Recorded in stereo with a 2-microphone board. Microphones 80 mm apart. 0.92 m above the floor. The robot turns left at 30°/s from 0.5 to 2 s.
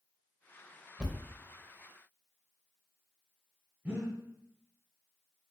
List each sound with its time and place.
1.0 s a thud: 15° right (ahead or behind), 0.7 m
3.9 s breathing: 20° right (ahead or behind), 1.2 m